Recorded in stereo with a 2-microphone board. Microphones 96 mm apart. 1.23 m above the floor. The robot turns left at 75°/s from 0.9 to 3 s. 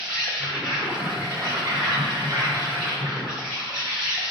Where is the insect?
10° right, 1.2 m; by 4.3 s 170° right, 1.2 m.